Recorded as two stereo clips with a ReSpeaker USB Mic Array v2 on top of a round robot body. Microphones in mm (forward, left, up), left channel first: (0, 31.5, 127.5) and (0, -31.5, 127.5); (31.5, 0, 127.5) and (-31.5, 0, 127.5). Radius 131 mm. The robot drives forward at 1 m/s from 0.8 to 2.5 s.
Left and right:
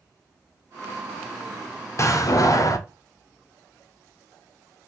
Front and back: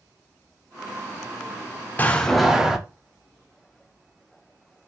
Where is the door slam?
60° left, 0.9 m; by 2.8 s 100° left, 0.9 m.